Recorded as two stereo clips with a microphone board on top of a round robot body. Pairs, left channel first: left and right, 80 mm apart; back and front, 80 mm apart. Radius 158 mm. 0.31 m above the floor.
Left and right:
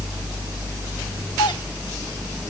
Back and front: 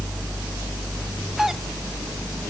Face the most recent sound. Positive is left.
turn(degrees=85)